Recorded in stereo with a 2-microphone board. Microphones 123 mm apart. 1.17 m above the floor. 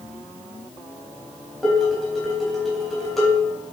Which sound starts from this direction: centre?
Dishes clattering, at 1.6 s.